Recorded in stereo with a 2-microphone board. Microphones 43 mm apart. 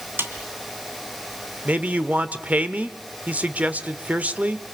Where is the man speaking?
40° right (ahead or behind), 1.1 m.